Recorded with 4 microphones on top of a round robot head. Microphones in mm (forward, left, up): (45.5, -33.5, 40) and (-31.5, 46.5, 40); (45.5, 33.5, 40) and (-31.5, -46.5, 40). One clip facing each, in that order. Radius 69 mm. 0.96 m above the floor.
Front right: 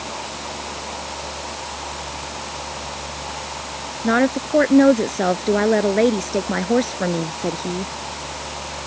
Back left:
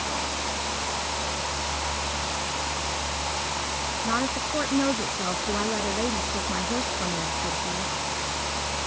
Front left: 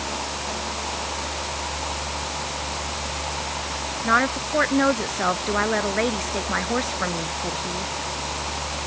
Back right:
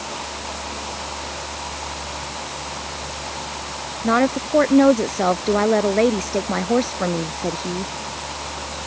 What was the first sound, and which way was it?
A woman speaking, 75° right.